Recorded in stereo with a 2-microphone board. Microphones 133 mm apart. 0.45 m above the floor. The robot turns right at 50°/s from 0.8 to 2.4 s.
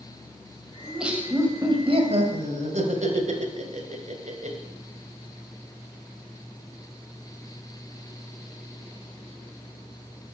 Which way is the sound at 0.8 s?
Straight behind.